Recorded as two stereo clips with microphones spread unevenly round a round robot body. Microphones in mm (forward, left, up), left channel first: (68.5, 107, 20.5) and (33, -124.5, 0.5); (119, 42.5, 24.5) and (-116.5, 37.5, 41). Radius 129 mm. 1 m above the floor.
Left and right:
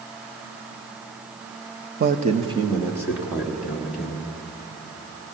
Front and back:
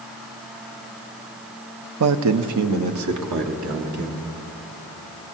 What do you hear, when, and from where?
2.0 s a man speaking: 150° right, 0.6 m; by 4.2 s 170° left, 2.5 m